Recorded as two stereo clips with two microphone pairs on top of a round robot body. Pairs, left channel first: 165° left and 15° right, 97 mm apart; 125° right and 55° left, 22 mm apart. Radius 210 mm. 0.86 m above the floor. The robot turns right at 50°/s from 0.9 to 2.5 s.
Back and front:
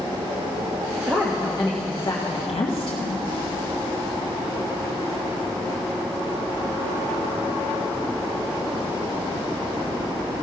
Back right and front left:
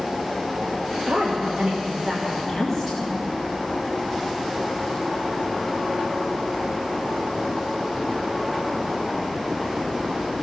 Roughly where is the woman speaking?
Ahead left.